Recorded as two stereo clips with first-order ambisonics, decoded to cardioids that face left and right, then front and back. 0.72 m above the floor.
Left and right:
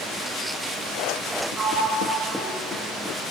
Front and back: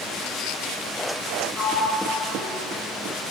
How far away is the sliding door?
About 0.7 m.